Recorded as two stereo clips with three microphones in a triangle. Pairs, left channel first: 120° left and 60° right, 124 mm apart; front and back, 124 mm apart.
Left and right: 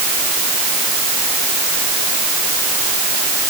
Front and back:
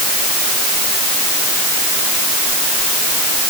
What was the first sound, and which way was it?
Only background noise.